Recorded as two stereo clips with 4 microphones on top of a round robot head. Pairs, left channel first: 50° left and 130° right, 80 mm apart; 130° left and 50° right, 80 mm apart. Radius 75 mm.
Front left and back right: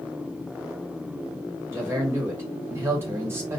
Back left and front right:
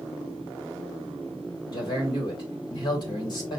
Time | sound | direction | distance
1.7 | a man speaking | 165° left | 1.9 m